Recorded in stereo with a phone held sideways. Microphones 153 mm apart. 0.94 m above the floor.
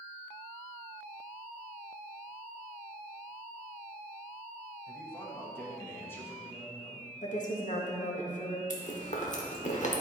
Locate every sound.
4.9 s a man speaking: 15° left (ahead or behind), 1.3 m
7.2 s a woman speaking: 60° left (ahead or behind), 1.3 m
8.7 s chewing: 55° left (ahead or behind), 1.2 m